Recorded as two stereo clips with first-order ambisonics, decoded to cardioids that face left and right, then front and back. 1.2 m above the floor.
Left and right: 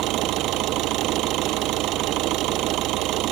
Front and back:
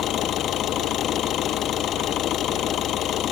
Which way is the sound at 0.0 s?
50° right.